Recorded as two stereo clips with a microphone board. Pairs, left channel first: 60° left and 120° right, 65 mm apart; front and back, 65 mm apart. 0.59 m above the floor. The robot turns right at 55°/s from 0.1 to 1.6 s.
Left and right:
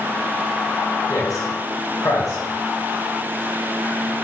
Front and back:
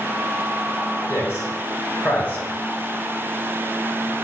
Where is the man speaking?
35° left, 2.5 m; by 2.5 s 60° left, 2.5 m.